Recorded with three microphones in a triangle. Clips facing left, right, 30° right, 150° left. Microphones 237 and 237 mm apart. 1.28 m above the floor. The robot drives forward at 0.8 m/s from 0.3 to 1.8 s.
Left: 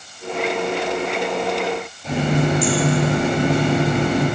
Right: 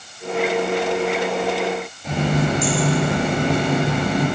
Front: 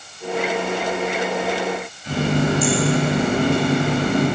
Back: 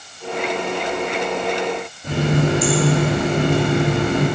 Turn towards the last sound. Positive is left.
turn(degrees=180)